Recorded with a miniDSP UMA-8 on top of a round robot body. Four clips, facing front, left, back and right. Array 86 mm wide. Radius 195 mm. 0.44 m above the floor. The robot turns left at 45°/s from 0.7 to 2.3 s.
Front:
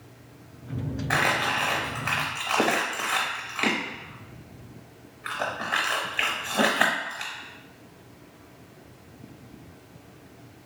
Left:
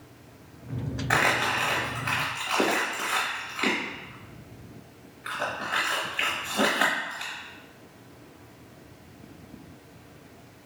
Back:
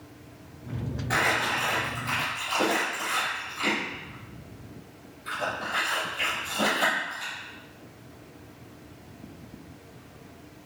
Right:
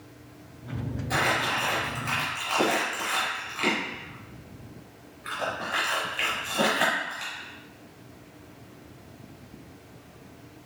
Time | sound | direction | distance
1.1 | crumpling | 60° left | 0.9 m